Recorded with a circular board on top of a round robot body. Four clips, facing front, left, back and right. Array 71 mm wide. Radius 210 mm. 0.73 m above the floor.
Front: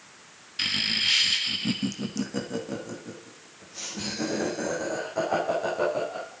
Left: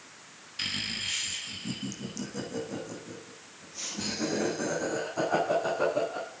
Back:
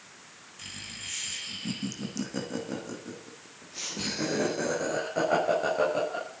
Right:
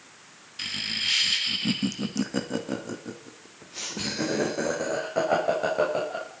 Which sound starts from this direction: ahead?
Laughter, at 0.6 s.